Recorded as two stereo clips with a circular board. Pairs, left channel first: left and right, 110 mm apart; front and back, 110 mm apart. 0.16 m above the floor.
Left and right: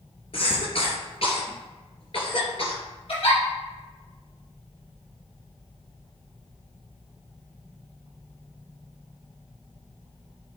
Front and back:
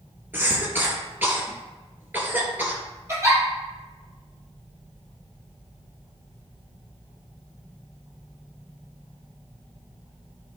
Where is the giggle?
120° left, 4 m.